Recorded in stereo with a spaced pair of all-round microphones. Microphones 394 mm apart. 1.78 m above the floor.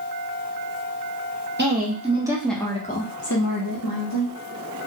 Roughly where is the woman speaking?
Right.